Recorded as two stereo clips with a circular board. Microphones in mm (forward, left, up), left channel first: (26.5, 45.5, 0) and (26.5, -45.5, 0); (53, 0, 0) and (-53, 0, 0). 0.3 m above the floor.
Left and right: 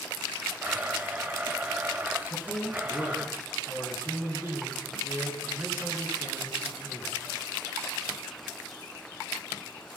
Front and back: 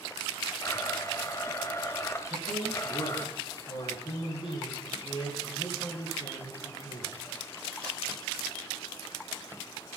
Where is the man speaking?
25° right, 5.5 m.